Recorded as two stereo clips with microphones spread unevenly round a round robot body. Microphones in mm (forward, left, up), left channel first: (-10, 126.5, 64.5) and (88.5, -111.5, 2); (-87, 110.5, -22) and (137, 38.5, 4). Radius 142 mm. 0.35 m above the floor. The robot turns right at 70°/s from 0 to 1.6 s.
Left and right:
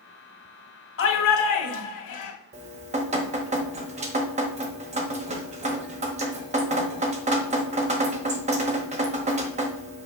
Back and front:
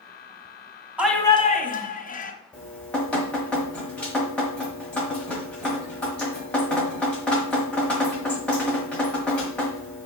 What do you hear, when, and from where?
1.0 s a shout: 70° left, 2 m; by 2.3 s 110° left, 2 m
2.5 s dripping: 115° right, 1.1 m